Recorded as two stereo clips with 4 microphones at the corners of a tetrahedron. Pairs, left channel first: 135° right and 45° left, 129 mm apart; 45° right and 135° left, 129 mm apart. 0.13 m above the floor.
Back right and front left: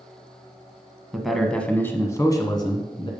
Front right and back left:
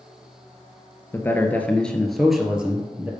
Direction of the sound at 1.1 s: 35° right.